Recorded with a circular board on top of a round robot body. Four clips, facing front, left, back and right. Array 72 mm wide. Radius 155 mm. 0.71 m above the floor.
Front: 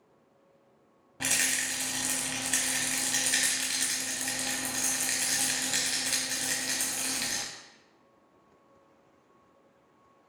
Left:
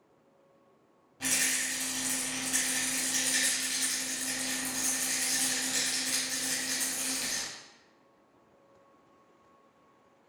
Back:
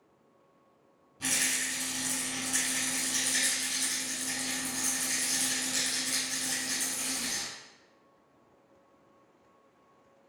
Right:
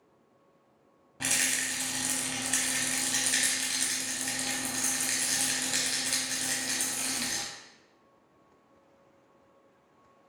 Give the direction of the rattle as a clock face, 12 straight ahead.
1 o'clock.